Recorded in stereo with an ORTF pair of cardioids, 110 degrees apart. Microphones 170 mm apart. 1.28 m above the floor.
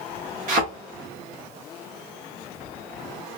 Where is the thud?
55° right, 1.8 m.